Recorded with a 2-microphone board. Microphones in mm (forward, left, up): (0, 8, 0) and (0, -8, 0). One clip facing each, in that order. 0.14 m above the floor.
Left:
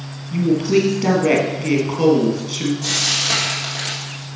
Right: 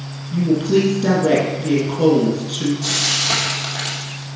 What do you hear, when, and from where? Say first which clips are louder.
0.3 s a woman speaking: even; 60° left (ahead or behind), 3.5 m
2.8 s frying: even; 5° left (ahead or behind), 3 m